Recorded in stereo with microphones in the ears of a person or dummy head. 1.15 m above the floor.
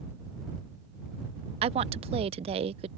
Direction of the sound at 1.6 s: 30° right (ahead or behind).